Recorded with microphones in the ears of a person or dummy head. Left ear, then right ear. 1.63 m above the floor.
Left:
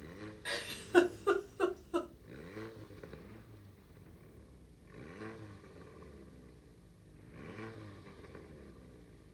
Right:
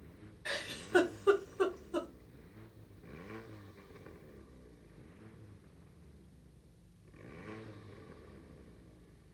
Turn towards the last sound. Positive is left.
turn(degrees=5)  # may be behind; listen again after turning